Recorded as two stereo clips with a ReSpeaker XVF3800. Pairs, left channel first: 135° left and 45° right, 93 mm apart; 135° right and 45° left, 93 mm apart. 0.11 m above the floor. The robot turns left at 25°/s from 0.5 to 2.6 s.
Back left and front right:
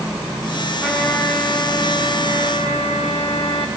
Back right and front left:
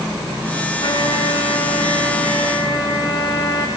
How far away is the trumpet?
About 5.5 m.